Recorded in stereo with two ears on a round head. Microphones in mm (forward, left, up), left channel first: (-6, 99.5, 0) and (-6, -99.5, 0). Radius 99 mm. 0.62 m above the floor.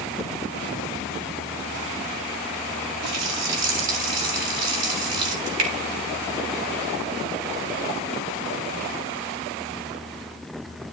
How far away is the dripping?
About 4.5 m.